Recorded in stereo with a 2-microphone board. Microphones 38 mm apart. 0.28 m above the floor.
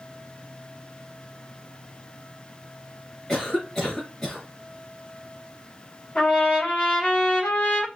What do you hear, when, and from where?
3.3 s a cough: 10° left (ahead or behind), 2.5 m
6.2 s a trumpet: 40° left (ahead or behind), 3 m